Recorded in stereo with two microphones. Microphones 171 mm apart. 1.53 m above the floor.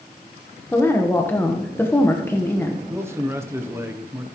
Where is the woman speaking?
15° left (ahead or behind), 1.1 m.